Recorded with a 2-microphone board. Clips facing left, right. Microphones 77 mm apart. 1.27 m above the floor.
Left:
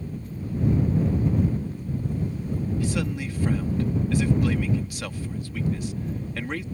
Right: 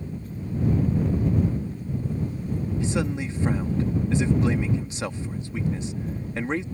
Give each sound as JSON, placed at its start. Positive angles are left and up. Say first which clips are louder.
{"t": 2.8, "sound": "a man speaking", "louder": "right 1 dB", "side_deg": -25}